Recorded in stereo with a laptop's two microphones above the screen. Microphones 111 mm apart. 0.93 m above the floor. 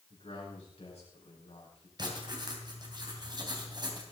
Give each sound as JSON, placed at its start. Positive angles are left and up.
{"t": 0.1, "sound": "a man speaking", "side_deg": 65, "distance_m": 5.5}
{"t": 2.0, "sound": "writing", "side_deg": -40, "distance_m": 2.5}